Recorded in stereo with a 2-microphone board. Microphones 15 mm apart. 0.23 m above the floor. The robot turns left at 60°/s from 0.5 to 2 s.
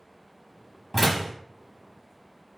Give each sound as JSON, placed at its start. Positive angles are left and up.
{"t": 0.9, "sound": "a door slam", "side_deg": -5, "distance_m": 1.0}